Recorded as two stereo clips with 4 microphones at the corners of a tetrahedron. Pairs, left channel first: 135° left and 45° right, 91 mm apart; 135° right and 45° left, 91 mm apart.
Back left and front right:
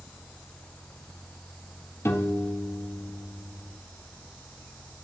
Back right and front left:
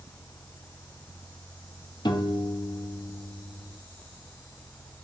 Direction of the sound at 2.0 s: 165° right.